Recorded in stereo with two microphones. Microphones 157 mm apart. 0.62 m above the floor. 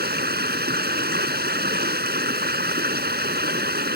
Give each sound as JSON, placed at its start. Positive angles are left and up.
{"t": 0.0, "sound": "running water", "side_deg": -85}